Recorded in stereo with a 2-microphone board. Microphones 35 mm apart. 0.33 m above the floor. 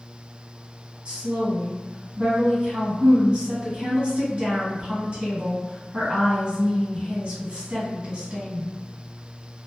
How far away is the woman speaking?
About 2.0 m.